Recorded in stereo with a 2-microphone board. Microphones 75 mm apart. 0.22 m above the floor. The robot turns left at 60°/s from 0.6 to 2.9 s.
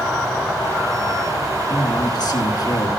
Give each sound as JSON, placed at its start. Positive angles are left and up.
{"t": 1.7, "sound": "a man speaking", "azimuth_deg": 130, "distance_m": 2.0}